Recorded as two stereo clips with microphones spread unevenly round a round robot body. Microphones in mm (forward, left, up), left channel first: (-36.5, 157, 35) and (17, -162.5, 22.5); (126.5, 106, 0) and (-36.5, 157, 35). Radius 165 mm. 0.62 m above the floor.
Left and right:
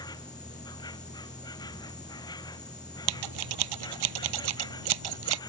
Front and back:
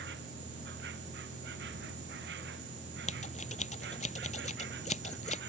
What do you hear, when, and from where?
0.0 s an insect: 175° left
3.1 s scissors: 85° right